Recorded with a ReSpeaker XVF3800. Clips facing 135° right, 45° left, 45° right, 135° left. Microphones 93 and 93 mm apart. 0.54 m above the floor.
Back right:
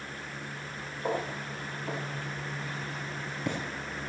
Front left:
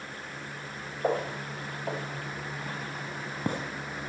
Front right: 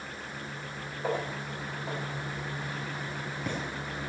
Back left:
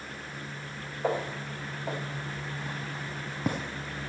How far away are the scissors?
No scissors in this recording.